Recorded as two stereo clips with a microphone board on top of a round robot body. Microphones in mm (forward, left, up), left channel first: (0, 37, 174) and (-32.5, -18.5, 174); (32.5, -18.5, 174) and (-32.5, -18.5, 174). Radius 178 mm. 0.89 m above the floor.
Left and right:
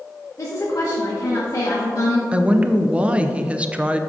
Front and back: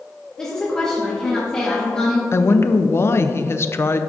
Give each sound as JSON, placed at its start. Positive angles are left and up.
{"t": 0.4, "sound": "a woman speaking", "azimuth_deg": 75, "distance_m": 1.5}
{"t": 2.3, "sound": "a woman speaking", "azimuth_deg": -50, "distance_m": 0.6}